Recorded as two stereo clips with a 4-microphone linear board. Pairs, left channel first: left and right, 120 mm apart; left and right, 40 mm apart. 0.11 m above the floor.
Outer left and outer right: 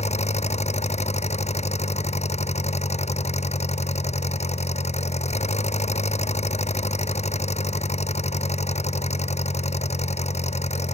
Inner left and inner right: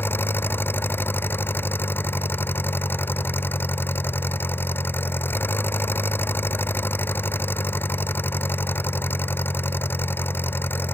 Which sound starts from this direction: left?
An engine running, at 0.0 s.